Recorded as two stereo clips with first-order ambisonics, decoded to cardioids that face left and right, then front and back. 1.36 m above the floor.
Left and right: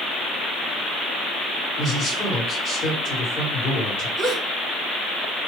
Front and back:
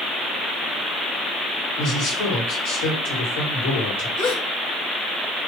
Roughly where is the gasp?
Ahead.